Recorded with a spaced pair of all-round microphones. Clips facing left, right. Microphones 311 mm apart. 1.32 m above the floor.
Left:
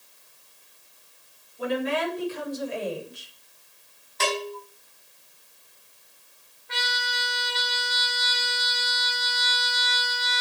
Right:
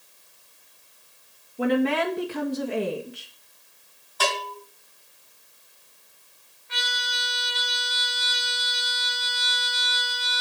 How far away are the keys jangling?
I don't hear keys jangling.